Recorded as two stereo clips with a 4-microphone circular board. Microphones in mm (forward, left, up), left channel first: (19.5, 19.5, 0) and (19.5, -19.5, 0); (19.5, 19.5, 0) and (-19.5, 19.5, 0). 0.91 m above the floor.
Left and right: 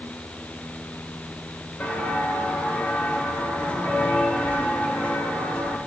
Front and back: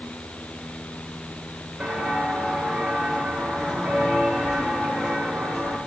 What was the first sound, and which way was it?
Footsteps, 105° left.